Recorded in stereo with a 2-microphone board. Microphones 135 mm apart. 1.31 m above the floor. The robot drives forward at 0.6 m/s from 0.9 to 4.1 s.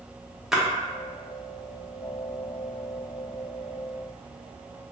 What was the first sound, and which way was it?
A splash, centre (ahead or behind).